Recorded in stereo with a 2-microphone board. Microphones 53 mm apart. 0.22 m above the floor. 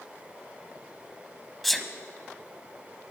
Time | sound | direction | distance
1.6 | a sneeze | centre (ahead or behind) | 1.0 m